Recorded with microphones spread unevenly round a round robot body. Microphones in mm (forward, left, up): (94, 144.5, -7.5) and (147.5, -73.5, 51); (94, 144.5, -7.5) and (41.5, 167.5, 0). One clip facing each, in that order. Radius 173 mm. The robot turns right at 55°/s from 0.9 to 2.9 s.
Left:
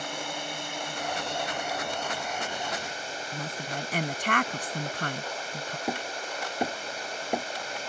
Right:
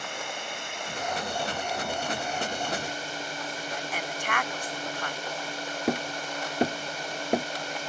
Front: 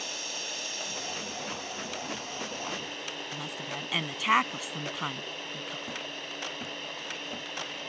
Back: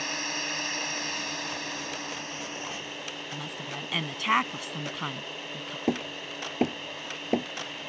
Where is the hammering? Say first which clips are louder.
Right 6 dB, back 8 dB; 150° right.